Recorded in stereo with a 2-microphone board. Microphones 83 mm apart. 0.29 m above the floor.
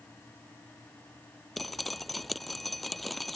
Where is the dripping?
Centre (ahead or behind).